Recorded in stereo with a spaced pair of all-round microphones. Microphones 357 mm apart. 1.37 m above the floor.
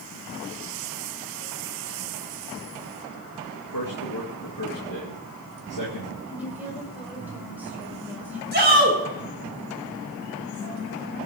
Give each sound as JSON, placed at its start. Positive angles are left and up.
{"t": 3.7, "sound": "a man speaking", "side_deg": 60, "distance_m": 2.0}
{"t": 6.3, "sound": "a woman speaking", "side_deg": -5, "distance_m": 5.0}
{"t": 8.5, "sound": "a shout", "side_deg": -30, "distance_m": 5.0}